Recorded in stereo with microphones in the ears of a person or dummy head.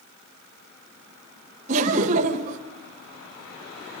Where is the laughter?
35° right (ahead or behind), 1.2 m.